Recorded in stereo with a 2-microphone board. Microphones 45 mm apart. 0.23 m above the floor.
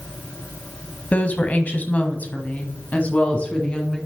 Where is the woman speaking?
35° left (ahead or behind), 1.3 m; by 4.0 s 25° left (ahead or behind), 2 m.